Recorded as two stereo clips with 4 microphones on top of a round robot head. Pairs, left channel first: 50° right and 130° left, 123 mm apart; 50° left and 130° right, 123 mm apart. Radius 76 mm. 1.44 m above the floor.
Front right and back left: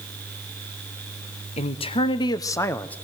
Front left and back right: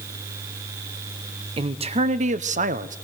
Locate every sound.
1.6 s a man speaking: 85° right, 1.2 m; by 3.0 s 130° right, 1.1 m